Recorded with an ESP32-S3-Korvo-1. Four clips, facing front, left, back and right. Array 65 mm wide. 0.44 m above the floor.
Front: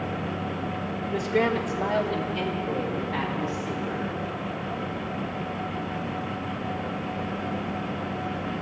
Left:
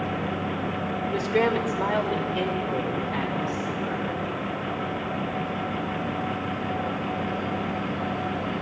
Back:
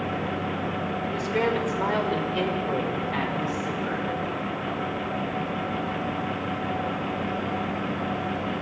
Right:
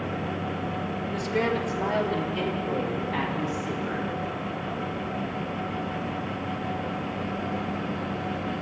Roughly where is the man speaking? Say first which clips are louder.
Left 4 dB, front 2 dB; left.